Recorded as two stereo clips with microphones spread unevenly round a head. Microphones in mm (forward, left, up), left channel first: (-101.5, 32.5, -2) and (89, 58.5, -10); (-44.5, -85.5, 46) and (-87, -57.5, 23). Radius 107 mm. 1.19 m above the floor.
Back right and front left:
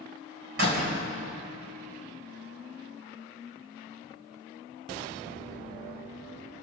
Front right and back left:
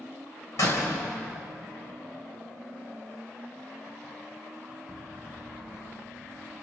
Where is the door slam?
40° right, 4 m.